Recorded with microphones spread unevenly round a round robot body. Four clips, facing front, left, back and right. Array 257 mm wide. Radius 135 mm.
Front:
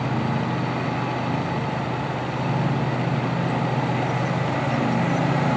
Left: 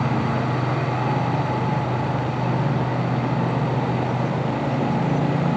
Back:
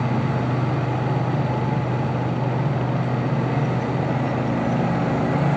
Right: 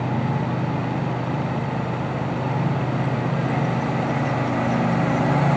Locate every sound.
Only background noise.